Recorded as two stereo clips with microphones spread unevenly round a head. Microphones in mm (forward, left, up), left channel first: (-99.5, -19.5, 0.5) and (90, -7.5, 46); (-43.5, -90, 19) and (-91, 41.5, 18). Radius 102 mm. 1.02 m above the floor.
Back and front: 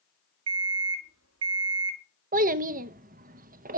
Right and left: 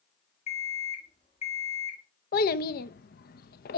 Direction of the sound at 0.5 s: 5° right.